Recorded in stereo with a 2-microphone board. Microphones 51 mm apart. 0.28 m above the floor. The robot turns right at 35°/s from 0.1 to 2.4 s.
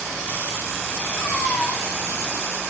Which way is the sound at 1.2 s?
60° left (ahead or behind).